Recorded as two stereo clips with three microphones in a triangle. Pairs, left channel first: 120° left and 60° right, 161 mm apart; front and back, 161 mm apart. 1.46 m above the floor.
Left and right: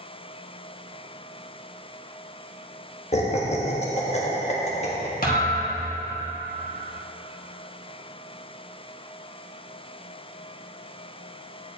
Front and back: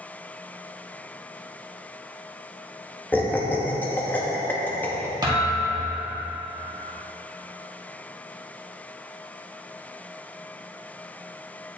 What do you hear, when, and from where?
3.1 s laughter: 80° left, 1.1 m
5.2 s a thud: 120° left, 1.5 m